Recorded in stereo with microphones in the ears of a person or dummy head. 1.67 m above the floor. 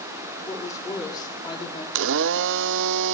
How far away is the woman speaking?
About 4 m.